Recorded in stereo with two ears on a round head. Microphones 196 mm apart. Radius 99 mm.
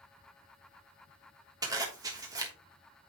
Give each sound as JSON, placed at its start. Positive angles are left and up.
{"t": 1.6, "sound": "a zipper", "side_deg": -15, "distance_m": 1.2}